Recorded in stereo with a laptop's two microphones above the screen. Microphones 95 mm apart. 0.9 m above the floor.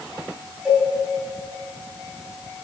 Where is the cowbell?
5° right (ahead or behind), 4.5 m.